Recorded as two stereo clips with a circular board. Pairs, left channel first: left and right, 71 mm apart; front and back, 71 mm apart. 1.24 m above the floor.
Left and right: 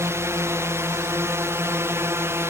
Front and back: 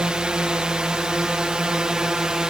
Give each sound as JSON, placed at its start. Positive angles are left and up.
{"t": 0.0, "sound": "a drone", "azimuth_deg": -110}